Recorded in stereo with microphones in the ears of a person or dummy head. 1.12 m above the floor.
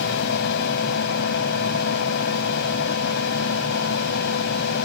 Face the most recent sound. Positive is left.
turn(degrees=60)  # may be behind; listen again after turning